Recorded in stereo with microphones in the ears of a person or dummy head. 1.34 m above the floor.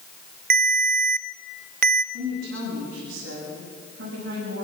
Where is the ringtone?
50° right (ahead or behind), 0.5 m.